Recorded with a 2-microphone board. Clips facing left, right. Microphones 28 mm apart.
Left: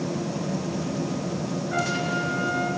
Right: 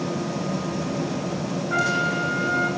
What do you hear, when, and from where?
1.7 s a trumpet: 80° right, 7 m